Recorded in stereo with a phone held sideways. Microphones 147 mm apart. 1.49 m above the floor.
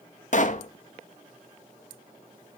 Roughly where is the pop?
Left.